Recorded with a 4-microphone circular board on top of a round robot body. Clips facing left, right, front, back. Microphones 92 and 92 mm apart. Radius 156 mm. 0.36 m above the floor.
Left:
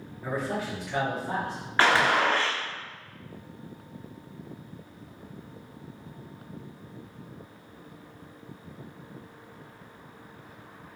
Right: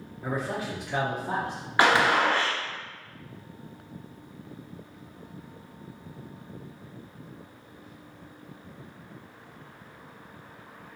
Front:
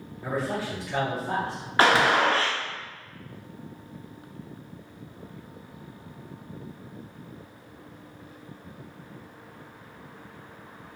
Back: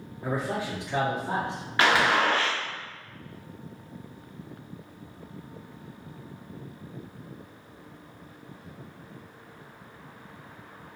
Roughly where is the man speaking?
Behind right.